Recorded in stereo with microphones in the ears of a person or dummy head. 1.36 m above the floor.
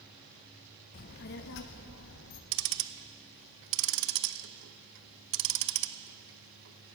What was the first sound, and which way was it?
A child speaking, 35° left (ahead or behind).